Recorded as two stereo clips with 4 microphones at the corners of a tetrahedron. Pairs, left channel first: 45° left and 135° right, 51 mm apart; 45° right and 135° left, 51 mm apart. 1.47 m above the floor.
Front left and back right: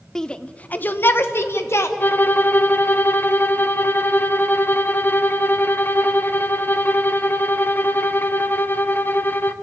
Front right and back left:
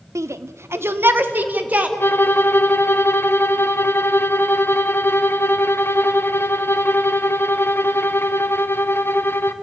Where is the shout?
125° left, 0.9 m; by 1.9 s 75° left, 1.6 m.